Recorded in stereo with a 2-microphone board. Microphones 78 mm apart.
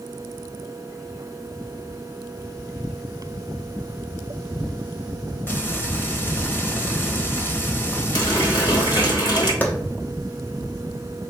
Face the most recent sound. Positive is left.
turn(degrees=20)  # may be behind; listen again after turning